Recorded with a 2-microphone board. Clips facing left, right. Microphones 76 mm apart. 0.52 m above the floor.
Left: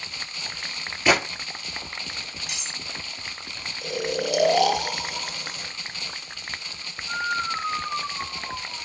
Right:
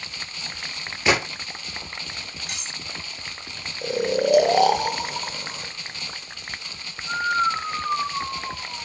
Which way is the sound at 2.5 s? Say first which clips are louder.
Right 1 dB; 45° right (ahead or behind).